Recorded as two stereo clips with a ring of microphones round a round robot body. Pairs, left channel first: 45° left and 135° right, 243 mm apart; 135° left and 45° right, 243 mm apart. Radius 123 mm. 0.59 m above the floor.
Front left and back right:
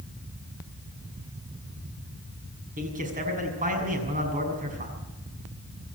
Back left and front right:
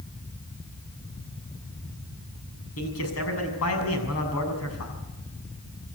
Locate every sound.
2.8 s a man speaking: 165° left, 6.5 m